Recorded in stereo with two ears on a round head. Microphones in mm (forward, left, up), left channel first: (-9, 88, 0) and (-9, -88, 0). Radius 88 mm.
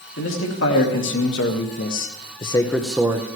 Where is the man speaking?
75° left (ahead or behind), 2.5 m; by 3.3 s 25° right (ahead or behind), 0.9 m.